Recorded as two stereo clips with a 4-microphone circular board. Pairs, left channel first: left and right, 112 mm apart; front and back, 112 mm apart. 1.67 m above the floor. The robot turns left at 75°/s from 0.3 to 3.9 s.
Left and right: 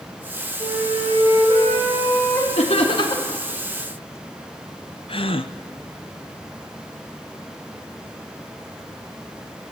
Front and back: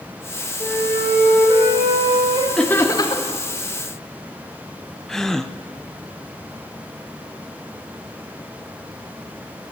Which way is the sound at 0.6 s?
60° right.